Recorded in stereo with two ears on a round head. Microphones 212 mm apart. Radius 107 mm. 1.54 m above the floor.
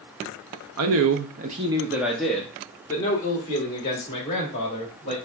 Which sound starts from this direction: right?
A man speaking, at 0.8 s.